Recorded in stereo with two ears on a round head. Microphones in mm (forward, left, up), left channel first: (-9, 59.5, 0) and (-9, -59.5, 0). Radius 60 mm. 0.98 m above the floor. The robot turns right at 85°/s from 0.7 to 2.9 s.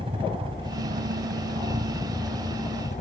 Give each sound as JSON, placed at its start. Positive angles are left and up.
{"t": 0.0, "sound": "a helicopter", "azimuth_deg": -135}